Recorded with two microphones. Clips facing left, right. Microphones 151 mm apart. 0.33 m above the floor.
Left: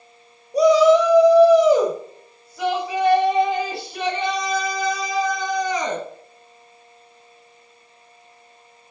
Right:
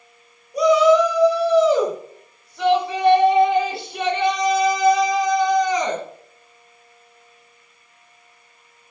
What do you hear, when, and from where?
0.5 s a shout: 35° left (ahead or behind), 1.1 m; by 6.0 s 10° right (ahead or behind), 3.5 m